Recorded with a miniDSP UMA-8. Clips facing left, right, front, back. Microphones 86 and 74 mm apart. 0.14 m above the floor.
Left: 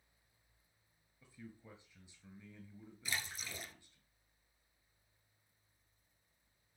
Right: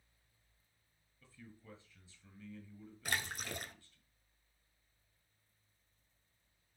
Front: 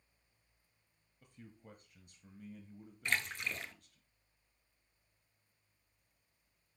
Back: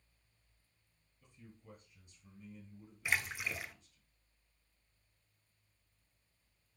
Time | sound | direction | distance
1.2 | a man speaking | 20° left | 1.8 m
3.0 | a splash | 100° right | 0.8 m